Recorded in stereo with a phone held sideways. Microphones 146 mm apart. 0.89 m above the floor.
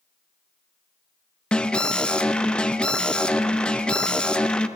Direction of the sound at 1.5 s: 5° left (ahead or behind).